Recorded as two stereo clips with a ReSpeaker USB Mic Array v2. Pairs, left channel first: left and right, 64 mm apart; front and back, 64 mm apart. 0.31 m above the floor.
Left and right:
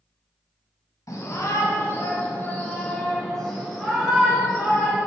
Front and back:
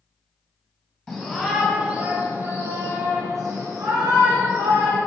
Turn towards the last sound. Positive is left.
turn(degrees=-165)